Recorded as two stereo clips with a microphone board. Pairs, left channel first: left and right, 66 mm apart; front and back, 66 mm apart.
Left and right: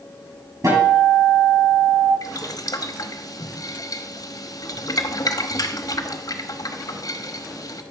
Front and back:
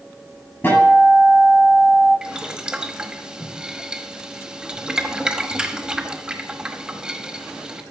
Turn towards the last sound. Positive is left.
turn(degrees=105)